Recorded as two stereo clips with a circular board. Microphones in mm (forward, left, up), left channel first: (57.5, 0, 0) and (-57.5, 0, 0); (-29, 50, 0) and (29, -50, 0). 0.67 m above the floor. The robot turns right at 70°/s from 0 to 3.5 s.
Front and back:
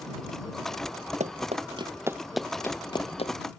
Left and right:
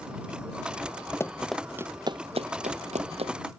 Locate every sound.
1.2 s running footsteps: 175° right; by 3.3 s 25° right